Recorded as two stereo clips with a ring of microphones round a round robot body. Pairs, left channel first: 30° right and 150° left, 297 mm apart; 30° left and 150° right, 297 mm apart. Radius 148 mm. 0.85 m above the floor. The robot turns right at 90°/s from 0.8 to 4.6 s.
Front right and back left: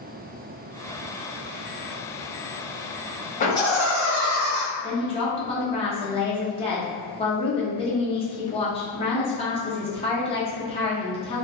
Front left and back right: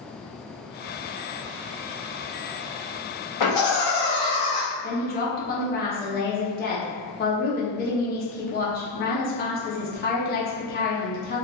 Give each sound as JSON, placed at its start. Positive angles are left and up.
{"t": 3.4, "sound": "laughter", "azimuth_deg": 30, "distance_m": 1.1}
{"t": 4.8, "sound": "a woman speaking", "azimuth_deg": 20, "distance_m": 0.6}